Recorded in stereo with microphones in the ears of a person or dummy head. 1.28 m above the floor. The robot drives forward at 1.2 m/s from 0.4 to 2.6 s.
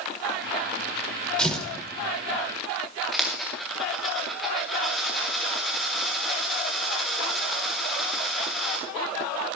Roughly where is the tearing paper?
Centre.